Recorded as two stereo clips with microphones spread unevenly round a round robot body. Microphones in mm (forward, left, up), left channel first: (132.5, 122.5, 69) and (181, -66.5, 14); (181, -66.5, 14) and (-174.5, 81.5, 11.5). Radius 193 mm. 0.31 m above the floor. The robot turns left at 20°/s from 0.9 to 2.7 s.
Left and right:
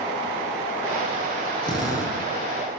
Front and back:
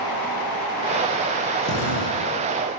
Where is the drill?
35° left, 9 m; by 2.2 s 25° left, 9 m.